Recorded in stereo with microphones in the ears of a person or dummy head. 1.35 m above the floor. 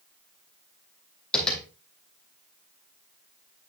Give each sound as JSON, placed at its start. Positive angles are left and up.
{"t": 1.3, "sound": "tapping", "side_deg": 5, "distance_m": 3.0}